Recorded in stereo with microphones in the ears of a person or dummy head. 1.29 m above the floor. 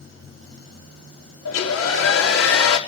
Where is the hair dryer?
85° left, 3.5 m.